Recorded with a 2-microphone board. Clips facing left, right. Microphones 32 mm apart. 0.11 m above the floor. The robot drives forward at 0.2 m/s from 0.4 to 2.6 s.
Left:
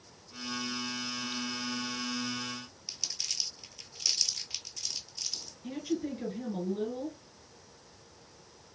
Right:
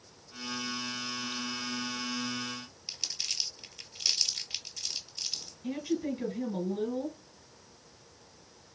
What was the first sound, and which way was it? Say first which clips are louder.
Crumpling: right 2 dB; 20° right (ahead or behind).